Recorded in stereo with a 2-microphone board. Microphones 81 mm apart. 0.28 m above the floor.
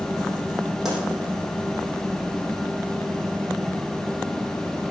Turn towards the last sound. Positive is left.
turn(degrees=-5)  # may be behind; listen again after turning